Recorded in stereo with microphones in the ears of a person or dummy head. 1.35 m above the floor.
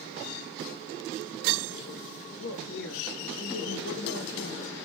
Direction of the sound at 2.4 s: 65° left (ahead or behind).